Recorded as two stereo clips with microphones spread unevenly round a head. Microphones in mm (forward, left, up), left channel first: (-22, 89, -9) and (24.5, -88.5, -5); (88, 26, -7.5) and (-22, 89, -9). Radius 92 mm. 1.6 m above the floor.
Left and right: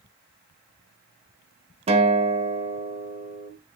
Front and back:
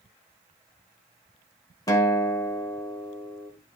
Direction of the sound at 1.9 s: 65° right.